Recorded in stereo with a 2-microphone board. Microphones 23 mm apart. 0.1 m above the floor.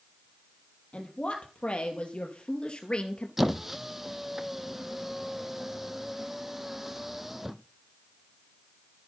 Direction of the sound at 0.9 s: 55° left (ahead or behind).